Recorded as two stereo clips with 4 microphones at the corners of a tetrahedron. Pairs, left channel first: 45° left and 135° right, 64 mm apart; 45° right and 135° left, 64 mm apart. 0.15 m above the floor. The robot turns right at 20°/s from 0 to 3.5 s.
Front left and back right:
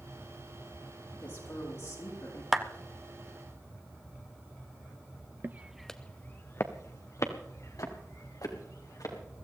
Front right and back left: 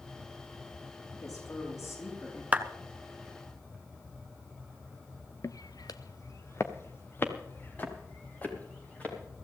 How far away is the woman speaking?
About 7.5 m.